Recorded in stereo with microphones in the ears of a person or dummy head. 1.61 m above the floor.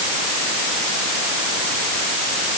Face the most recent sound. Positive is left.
No sound to turn to.